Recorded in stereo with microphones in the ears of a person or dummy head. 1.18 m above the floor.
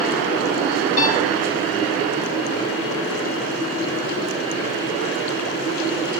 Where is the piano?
45° left (ahead or behind), 1.2 m.